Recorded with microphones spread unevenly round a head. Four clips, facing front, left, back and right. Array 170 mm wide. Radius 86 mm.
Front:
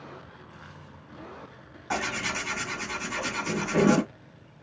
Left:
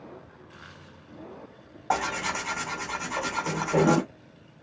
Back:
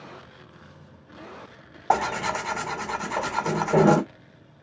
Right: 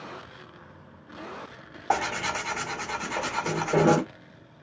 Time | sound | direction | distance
1.9 | tearing paper | 165° right | 2 m